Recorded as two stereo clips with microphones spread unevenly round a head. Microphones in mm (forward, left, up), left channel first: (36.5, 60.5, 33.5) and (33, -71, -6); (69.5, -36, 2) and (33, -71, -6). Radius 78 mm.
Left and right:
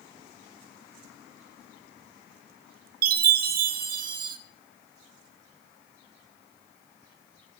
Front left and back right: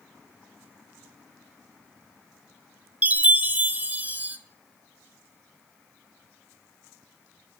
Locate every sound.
3.0 s a chime: 75° right, 1.1 m